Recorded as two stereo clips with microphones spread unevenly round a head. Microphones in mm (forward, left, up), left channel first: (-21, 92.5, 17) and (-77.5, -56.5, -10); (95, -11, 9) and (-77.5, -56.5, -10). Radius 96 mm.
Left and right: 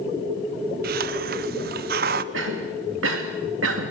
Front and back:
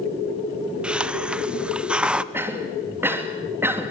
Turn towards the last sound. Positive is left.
turn(degrees=-85)